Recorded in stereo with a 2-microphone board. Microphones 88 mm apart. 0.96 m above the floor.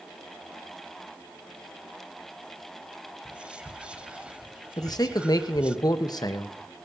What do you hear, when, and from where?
3.2 s whispering: 10° right (ahead or behind), 0.6 m
4.8 s a man speaking: 45° left (ahead or behind), 1.0 m